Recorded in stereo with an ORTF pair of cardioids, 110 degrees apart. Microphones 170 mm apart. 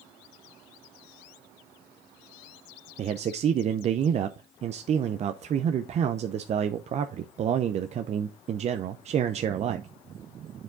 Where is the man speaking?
40° right, 0.5 m.